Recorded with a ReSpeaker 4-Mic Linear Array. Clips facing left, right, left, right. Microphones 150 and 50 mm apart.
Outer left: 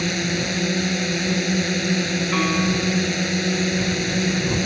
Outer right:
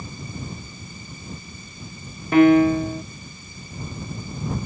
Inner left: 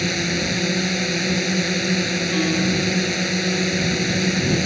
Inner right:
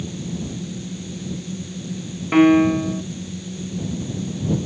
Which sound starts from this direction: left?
A drone, at 0.0 s.